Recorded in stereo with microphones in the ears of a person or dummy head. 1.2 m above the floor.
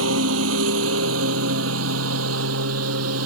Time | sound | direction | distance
0.0 | a lawn mower | 80° right | ?